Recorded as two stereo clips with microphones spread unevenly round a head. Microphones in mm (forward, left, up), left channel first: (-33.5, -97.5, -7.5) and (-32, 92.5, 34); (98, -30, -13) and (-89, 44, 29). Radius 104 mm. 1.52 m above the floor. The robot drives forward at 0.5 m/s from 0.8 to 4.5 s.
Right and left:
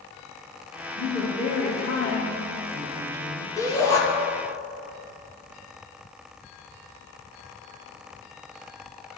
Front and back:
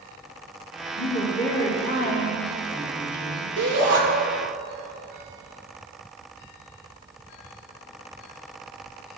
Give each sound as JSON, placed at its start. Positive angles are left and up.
{"t": 1.0, "sound": "a woman speaking", "azimuth_deg": -50, "distance_m": 3.0}
{"t": 3.6, "sound": "a shout", "azimuth_deg": -165, "distance_m": 2.0}